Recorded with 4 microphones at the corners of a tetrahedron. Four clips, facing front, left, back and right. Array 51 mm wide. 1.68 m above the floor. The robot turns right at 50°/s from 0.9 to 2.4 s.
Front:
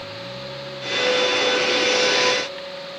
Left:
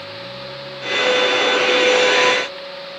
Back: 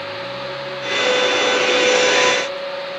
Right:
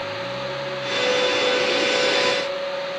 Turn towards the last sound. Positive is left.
No sound to turn to.